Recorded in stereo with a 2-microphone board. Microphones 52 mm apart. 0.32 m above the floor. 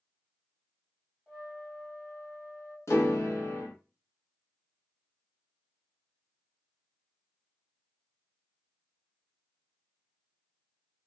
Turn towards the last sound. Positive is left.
turn(degrees=70)  # may be behind; listen again after turning